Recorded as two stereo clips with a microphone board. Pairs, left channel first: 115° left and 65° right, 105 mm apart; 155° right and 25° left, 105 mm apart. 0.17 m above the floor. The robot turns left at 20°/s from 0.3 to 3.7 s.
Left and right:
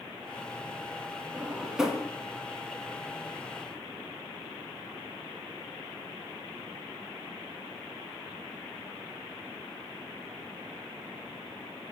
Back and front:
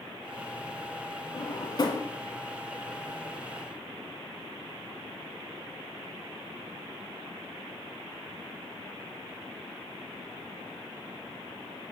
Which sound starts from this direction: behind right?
A drawer, at 1.3 s.